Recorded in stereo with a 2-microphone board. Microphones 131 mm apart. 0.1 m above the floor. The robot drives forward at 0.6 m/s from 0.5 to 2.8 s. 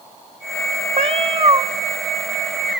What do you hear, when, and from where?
1.0 s a cat meowing: 50° right (ahead or behind), 0.6 m; by 1.6 s 30° right (ahead or behind), 0.9 m